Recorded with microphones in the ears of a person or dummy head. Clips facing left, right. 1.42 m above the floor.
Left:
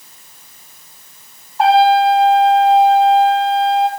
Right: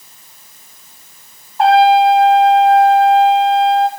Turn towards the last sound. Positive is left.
turn(degrees=5)  # may be behind; listen again after turning